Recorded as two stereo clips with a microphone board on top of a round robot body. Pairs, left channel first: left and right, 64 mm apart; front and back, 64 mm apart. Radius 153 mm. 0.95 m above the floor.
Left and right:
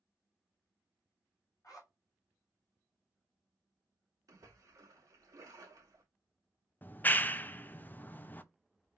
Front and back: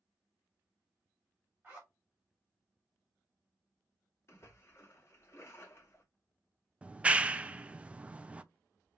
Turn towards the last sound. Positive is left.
turn(degrees=125)